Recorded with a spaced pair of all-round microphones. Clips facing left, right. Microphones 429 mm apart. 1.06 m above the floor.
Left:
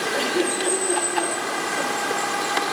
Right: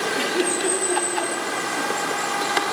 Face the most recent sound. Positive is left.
turn(degrees=-20)  # may be behind; listen again after turning